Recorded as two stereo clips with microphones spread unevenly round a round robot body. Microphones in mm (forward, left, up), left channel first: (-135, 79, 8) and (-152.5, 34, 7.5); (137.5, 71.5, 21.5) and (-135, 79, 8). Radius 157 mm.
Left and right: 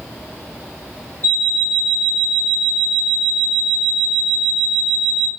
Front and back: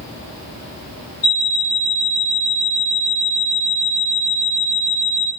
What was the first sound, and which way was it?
An alarm clock, 10° right.